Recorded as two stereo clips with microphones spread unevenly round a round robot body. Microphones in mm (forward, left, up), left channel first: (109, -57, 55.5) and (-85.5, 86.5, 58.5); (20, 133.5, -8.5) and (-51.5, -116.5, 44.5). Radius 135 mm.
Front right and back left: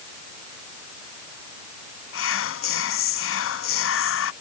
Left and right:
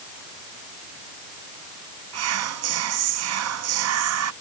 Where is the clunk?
I don't hear a clunk.